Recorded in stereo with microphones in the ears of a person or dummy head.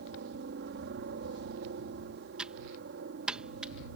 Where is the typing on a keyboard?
10° right (ahead or behind).